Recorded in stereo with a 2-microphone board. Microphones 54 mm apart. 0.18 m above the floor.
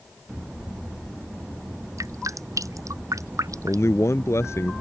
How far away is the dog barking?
I don't hear a dog barking.